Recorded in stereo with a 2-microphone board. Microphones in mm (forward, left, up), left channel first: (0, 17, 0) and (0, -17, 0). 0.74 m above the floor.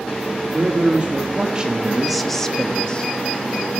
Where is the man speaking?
40° right (ahead or behind), 2.0 m; by 3.1 s 25° left (ahead or behind), 1.7 m.